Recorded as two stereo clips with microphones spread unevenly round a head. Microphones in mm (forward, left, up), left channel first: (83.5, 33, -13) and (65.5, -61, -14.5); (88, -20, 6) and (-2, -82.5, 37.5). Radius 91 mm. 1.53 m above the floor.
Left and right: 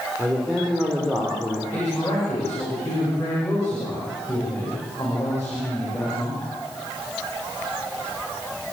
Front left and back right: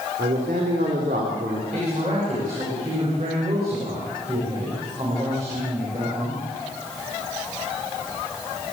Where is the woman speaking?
155° left, 7 m.